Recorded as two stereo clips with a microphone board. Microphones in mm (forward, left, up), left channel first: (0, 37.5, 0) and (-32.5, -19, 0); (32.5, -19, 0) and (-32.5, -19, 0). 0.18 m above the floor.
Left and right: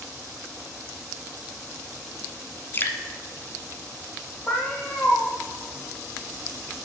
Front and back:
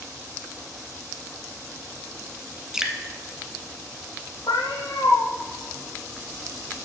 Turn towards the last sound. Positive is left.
turn(degrees=-10)